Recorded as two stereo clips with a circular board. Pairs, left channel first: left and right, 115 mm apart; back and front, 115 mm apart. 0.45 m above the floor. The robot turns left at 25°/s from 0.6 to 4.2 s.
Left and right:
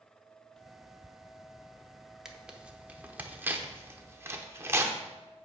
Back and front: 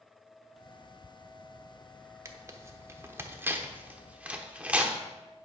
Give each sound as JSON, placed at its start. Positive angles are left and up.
{"t": 2.2, "sound": "tearing paper", "azimuth_deg": -10, "distance_m": 1.0}